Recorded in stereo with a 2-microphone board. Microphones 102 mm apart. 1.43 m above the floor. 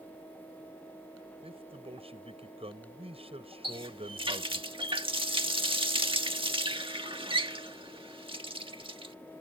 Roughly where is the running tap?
Right.